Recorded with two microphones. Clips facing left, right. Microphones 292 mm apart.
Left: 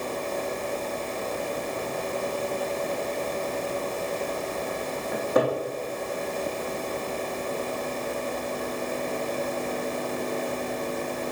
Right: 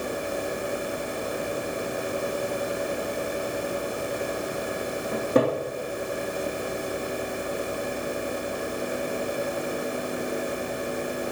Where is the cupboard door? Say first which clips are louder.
Right 2 dB; 35° right (ahead or behind), 3 m.